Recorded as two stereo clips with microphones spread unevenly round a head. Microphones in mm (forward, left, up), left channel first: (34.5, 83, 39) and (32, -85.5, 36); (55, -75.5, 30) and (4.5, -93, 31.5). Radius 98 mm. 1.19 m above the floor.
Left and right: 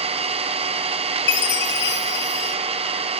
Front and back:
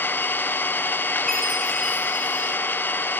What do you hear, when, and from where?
0.0 s an engine running: 35° right, 0.8 m
1.3 s a chime: 110° left, 0.8 m